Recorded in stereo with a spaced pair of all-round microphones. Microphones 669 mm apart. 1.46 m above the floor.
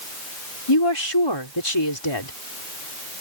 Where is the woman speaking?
40° left (ahead or behind).